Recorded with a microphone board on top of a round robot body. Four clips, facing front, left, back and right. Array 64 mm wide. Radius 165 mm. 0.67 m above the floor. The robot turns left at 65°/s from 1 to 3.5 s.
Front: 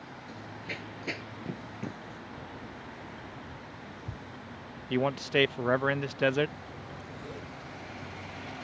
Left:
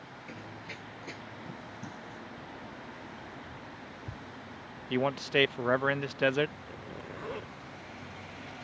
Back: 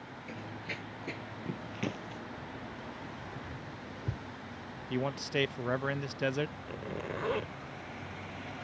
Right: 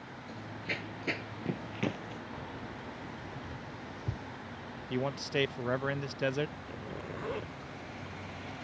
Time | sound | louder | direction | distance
0.3 | running footsteps | right 6 dB, even | 135° left | ?
2.3 | keys jangling | right 2 dB, even | 75° right | ?
4.9 | a man speaking | left 5 dB, front 6 dB | 55° left | ?
6.7 | a zipper | right 2 dB, back 5 dB | straight behind | ?